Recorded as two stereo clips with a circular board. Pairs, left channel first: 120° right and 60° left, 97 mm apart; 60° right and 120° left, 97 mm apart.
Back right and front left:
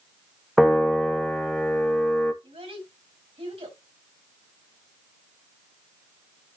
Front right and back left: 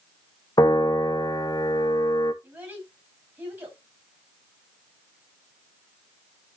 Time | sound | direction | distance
0.6 | a piano | 30° right | 1.0 m
2.4 | a child speaking | 55° left | 5.5 m